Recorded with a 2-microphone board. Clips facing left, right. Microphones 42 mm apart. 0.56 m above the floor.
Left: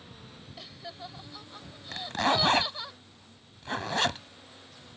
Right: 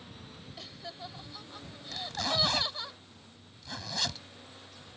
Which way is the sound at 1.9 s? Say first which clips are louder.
Left 6 dB; 45° left (ahead or behind).